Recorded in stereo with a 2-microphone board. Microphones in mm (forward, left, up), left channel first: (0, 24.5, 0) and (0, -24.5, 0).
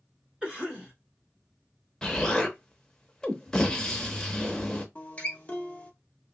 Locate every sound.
0.4 s a cough: 15° right (ahead or behind), 0.9 m
2.0 s an explosion: 15° left (ahead or behind), 0.6 m
5.0 s a guitar: 25° left (ahead or behind), 0.6 m